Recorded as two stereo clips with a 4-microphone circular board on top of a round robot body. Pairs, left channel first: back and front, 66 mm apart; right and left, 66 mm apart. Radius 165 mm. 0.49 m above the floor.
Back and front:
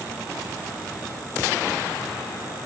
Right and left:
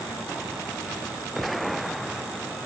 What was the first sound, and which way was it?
Only background noise.